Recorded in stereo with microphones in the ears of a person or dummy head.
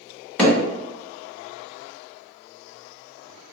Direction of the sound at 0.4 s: 15° left (ahead or behind).